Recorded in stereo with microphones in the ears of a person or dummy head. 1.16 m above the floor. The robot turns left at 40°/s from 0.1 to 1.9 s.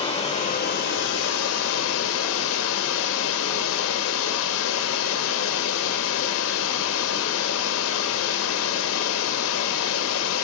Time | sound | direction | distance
0.0 | running water | 150° left | 0.8 m